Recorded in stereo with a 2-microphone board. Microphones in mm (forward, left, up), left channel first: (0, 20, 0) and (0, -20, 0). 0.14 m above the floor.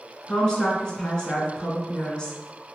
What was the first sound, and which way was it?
A woman speaking, 20° left (ahead or behind).